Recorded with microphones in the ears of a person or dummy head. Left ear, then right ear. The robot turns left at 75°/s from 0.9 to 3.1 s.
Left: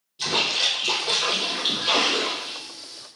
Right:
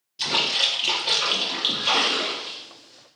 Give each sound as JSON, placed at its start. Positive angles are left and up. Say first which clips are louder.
{"t": 0.2, "sound": "a splash", "louder": "right 1 dB", "azimuth_deg": -20, "distance_m": 2.0}